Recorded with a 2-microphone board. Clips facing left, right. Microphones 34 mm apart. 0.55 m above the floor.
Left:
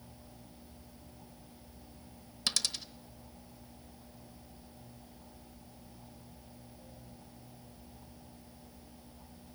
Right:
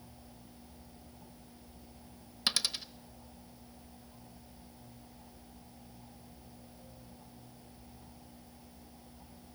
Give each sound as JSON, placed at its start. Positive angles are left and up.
{"t": 2.5, "sound": "a dropped coin", "side_deg": -20, "distance_m": 0.9}